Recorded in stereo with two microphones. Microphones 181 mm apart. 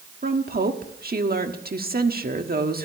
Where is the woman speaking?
50° right (ahead or behind), 1.4 m.